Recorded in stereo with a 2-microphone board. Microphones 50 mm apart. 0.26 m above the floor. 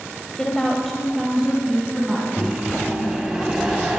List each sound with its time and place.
0.4 s a woman speaking: 15° left (ahead or behind), 1.4 m; by 3.2 s 15° right (ahead or behind), 4 m
2.4 s a microwave: 10° right (ahead or behind), 1.6 m